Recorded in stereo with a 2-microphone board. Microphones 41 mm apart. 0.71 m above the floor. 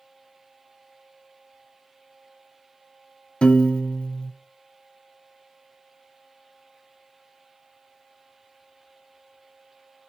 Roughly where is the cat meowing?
No cat meowing in this recording.